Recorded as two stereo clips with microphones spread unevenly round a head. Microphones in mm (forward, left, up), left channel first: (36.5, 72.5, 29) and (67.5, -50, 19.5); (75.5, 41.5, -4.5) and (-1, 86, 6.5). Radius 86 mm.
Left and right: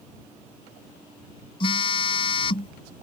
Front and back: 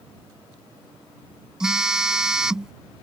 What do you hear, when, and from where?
1.6 s a phone buzzing: 75° left